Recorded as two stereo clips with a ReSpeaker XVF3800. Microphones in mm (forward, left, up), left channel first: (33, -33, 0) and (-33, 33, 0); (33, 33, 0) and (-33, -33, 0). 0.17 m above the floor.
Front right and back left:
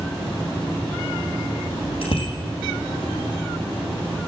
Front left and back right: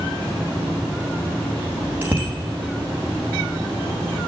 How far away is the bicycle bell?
About 5 m.